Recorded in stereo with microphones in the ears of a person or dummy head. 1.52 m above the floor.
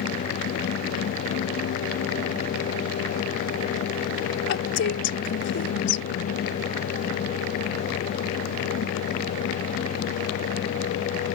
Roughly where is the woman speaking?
Left.